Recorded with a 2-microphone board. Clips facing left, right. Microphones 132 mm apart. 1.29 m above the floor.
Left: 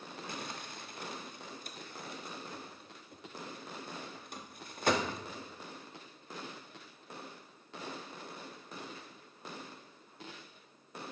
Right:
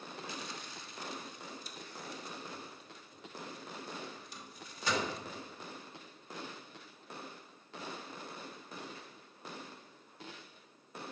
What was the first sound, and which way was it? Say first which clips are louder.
Crumpling: left 2 dB; 55° left (ahead or behind).